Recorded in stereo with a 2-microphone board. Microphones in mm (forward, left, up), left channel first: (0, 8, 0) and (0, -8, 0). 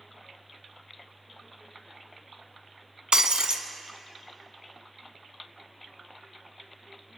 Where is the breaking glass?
55° right (ahead or behind), 0.6 m.